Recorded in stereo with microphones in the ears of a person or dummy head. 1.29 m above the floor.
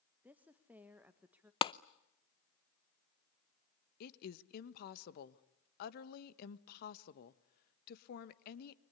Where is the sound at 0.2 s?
10° right (ahead or behind), 1.4 m.